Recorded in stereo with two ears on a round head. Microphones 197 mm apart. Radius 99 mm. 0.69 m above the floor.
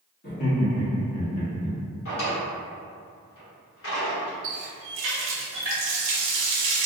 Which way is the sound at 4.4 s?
60° right (ahead or behind).